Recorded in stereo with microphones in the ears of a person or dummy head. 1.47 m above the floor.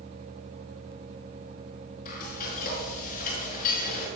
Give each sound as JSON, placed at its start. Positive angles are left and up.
{"t": 2.0, "sound": "frying", "side_deg": 50, "distance_m": 5.5}